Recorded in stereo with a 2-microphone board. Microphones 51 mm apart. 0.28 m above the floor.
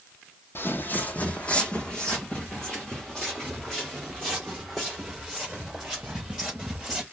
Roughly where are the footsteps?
Left.